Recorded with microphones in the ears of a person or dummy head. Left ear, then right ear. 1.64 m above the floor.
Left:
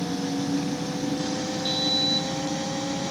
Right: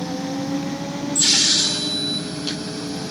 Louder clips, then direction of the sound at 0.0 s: Right 2 dB; 5° left (ahead or behind).